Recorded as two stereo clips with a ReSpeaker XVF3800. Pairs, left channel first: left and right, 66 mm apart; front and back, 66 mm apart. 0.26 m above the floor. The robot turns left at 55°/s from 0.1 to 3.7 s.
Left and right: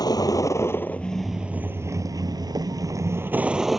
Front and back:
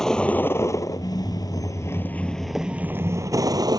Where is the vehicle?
80° left; by 3.8 s straight behind.